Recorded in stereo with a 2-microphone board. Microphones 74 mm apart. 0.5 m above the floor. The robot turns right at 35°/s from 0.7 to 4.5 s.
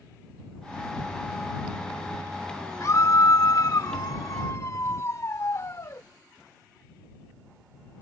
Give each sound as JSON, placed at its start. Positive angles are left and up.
{"t": 2.8, "sound": "a scream", "azimuth_deg": 60}